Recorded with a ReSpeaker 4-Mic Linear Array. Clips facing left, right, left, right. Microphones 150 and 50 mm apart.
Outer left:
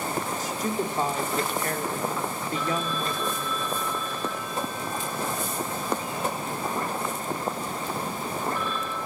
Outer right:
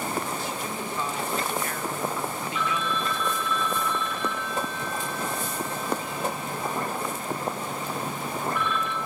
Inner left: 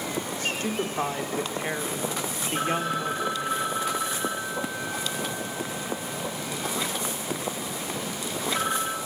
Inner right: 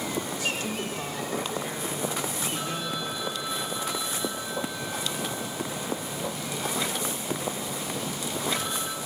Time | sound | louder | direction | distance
0.4 | a woman speaking | outer left 4 dB, inner left 2 dB | 40° left (ahead or behind) | 3 m
2.5 | a phone ringing | outer left 1 dB, inner left 5 dB | 35° left (ahead or behind) | 2.5 m